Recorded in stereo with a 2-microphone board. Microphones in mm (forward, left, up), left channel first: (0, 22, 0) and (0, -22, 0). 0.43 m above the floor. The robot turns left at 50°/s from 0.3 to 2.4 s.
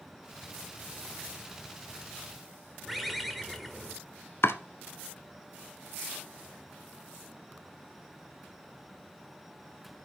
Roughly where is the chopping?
Left.